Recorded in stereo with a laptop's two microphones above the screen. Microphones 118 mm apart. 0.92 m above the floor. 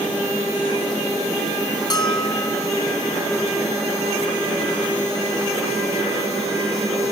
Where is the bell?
35° left (ahead or behind), 1.1 m.